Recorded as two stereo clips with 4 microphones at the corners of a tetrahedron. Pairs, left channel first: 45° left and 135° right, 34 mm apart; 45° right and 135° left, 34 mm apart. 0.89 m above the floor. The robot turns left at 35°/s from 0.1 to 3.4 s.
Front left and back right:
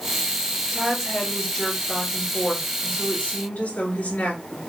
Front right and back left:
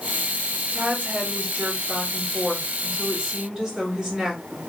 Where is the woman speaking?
150° left, 2.5 m; by 4.6 s 55° left, 2.5 m.